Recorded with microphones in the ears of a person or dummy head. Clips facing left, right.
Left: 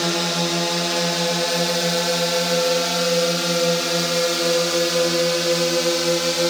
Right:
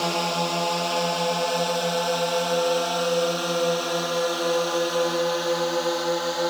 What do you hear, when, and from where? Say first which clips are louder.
0.0 s a drone: left 2 dB; 20° left (ahead or behind); by 6.5 s 35° left (ahead or behind)